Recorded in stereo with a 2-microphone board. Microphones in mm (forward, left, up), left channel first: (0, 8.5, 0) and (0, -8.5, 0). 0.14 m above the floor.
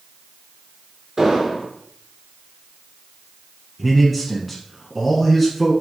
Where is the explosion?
45° right (ahead or behind), 2 m.